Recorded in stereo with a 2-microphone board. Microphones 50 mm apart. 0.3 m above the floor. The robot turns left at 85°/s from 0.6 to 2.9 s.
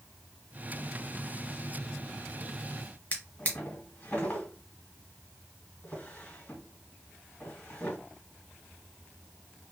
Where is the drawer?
35° left (ahead or behind), 1.4 m.